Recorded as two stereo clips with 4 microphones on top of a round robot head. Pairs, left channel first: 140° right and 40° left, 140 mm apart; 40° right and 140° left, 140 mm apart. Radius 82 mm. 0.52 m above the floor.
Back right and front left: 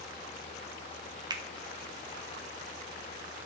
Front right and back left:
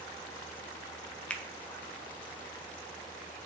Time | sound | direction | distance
1.3 | a finger snap | 30° left | 0.5 m